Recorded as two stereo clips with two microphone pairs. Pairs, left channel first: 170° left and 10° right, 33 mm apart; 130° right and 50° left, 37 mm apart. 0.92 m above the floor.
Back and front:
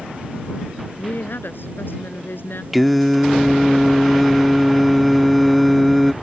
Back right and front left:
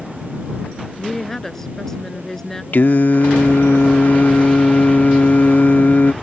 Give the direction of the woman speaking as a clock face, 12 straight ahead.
7 o'clock.